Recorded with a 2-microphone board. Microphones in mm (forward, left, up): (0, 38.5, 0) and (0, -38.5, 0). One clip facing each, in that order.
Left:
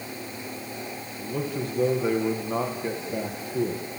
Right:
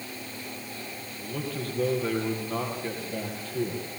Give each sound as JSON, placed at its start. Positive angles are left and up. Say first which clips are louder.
{"t": 1.2, "sound": "a man speaking", "louder": "left 4 dB", "side_deg": 15, "distance_m": 4.5}